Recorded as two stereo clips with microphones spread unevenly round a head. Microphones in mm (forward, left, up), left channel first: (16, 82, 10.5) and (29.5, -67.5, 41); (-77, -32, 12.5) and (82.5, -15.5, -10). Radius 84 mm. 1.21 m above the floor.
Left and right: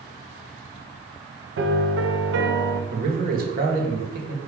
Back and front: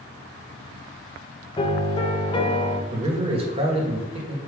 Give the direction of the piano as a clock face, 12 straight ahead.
4 o'clock.